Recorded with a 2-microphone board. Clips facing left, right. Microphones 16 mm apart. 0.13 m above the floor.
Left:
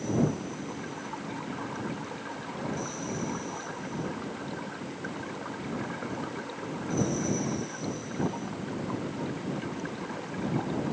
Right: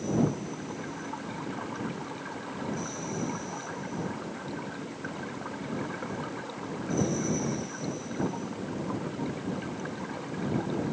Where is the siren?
I don't hear a siren.